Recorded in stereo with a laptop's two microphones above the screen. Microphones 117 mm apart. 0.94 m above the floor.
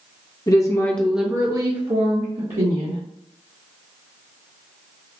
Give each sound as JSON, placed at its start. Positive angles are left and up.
{"t": 0.5, "sound": "a woman speaking", "side_deg": 35, "distance_m": 0.8}